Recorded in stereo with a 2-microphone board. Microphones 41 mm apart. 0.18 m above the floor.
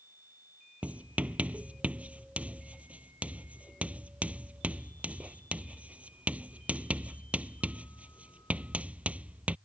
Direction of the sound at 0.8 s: 40° right (ahead or behind).